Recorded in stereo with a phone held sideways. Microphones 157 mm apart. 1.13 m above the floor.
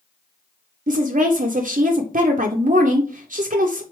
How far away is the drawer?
I don't hear a drawer.